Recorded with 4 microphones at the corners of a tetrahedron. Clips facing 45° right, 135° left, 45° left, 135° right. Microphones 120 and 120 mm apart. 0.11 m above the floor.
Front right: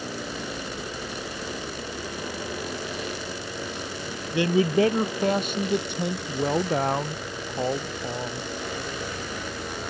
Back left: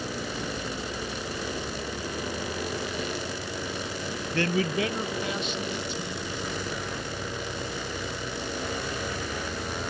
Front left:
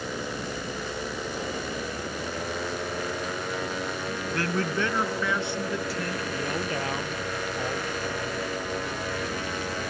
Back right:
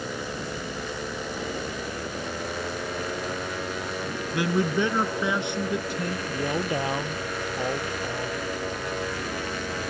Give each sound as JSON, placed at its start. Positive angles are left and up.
{"t": 4.3, "sound": "a man speaking", "azimuth_deg": -90}